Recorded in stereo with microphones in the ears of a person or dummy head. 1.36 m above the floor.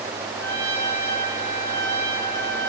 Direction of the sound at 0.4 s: 15° right (ahead or behind).